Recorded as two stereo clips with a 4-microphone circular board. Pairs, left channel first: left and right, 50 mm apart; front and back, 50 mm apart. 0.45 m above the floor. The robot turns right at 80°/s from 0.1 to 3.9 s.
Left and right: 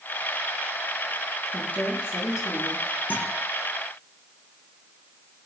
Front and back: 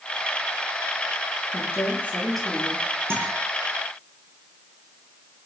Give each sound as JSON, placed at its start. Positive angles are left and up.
{"t": 1.5, "sound": "a woman speaking", "azimuth_deg": 15, "distance_m": 7.5}
{"t": 3.1, "sound": "a guitar", "azimuth_deg": 140, "distance_m": 6.5}